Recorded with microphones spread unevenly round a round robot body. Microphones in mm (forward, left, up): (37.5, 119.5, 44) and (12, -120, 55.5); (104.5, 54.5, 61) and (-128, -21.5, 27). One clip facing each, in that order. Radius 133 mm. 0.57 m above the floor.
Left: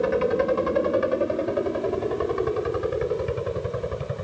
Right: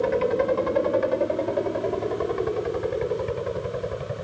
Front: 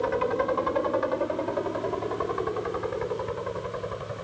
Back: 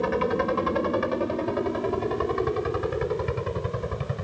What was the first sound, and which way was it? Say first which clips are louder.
A helicopter: even, back 1 dB; 160° left.